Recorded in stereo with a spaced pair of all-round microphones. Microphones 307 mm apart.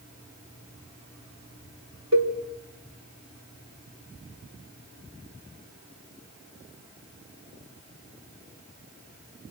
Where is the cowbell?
60° right (ahead or behind), 3.5 m.